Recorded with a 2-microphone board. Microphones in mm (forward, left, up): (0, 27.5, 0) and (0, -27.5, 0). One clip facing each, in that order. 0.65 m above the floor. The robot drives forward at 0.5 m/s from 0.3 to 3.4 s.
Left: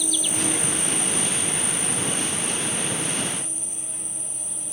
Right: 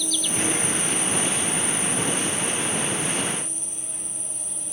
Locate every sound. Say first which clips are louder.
0.0 s an insect: right 1 dB; 15° left (ahead or behind), 0.8 m; by 4.7 s 5° left (ahead or behind), 2.5 m